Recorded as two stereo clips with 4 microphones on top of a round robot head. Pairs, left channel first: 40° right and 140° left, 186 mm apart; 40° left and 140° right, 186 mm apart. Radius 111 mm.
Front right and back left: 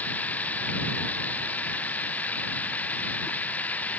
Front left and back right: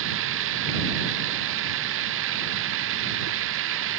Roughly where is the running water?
Behind right.